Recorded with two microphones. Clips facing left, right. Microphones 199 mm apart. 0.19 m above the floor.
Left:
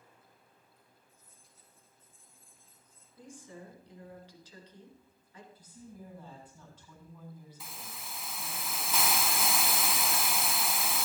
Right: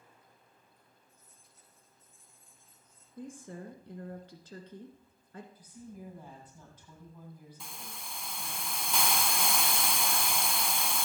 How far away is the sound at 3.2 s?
About 2.5 m.